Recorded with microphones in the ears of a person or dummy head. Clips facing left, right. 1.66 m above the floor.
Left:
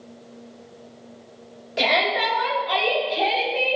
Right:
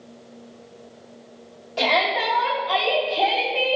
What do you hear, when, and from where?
1.8 s a shout: 20° left (ahead or behind), 2.5 m; by 3.8 s 10° left (ahead or behind), 3.5 m